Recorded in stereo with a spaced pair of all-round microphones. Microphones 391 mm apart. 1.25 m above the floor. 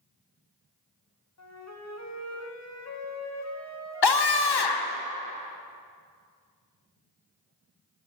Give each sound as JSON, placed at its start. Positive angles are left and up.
{"t": 1.4, "sound": "a flute", "side_deg": 40, "distance_m": 0.8}
{"t": 4.0, "sound": "a scream", "side_deg": 80, "distance_m": 0.7}